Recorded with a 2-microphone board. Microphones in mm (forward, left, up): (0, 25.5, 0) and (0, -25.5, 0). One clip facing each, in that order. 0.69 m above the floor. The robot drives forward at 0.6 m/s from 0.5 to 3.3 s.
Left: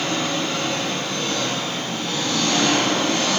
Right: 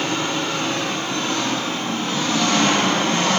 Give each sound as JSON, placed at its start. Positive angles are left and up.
{"t": 0.0, "sound": "an engine running", "side_deg": -25, "distance_m": 7.5}